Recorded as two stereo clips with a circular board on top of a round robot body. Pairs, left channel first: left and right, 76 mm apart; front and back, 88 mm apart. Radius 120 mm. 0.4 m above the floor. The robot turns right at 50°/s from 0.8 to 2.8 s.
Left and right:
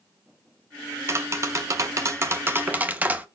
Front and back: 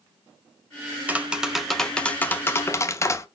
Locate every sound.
1.1 s tapping: 120° right, 1.1 m; by 3.3 s 35° right, 1.1 m